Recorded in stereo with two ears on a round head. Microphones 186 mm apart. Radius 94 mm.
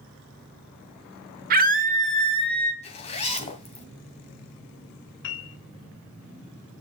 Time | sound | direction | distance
1.5 | a scream | 45° right (ahead or behind) | 1.1 m
2.8 | a zipper | 35° left (ahead or behind) | 2.5 m
5.2 | a piano | 65° left (ahead or behind) | 1.5 m